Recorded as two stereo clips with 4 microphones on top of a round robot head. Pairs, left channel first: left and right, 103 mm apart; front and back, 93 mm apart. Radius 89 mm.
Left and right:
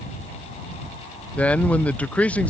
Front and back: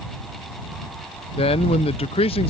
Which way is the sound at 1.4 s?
15° left.